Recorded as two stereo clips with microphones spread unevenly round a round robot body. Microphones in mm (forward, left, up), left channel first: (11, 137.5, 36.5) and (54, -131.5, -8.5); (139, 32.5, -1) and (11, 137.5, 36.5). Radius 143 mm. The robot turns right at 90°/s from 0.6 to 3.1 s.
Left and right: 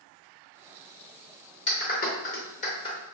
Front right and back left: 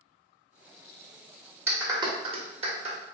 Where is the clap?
55° left, 1.0 m; by 3.0 s 170° left, 1.0 m.